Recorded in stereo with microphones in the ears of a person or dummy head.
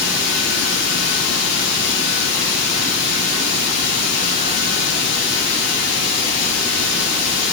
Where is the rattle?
I don't hear a rattle.